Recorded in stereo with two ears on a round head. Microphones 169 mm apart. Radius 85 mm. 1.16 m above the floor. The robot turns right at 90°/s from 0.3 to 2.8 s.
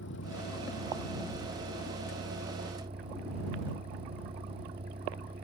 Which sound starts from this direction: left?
A vehicle, at 0.0 s.